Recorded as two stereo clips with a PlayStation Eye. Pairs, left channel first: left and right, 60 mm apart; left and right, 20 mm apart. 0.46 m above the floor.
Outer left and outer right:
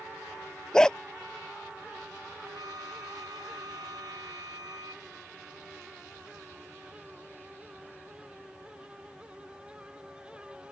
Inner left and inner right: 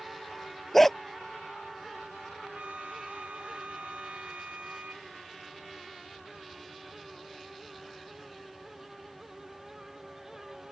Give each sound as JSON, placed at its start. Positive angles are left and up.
{"t": 0.7, "sound": "a dog barking", "side_deg": 10}
{"t": 2.4, "sound": "a flute", "side_deg": -75}